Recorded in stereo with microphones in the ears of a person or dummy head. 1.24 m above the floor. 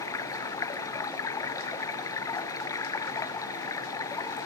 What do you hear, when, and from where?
0.0 s running water: 20° left (ahead or behind)